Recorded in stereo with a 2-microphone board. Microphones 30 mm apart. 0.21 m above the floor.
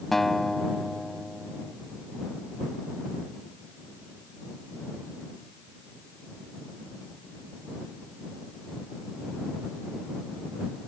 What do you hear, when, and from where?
0.1 s a guitar: 10° left (ahead or behind)